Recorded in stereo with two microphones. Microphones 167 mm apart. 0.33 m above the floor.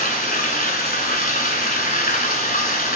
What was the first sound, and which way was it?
Running water, 60° left (ahead or behind).